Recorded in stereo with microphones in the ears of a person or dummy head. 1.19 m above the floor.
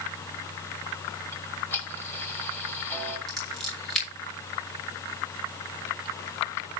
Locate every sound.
1.3 s ticking: 10° left (ahead or behind), 2.5 m
3.3 s scissors: 5° left (ahead or behind), 6 m